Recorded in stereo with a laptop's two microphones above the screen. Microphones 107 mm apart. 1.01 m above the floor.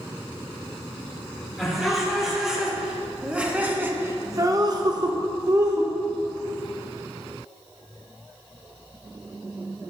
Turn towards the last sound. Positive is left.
turn(degrees=-30)  # may be behind; listen again after turning